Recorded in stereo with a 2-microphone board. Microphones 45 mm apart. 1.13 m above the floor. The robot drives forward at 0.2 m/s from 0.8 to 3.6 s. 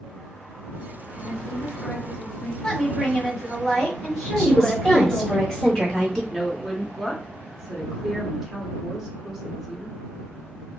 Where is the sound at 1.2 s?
65° left (ahead or behind), 1.5 m; by 2.5 s 55° left (ahead or behind), 1.7 m.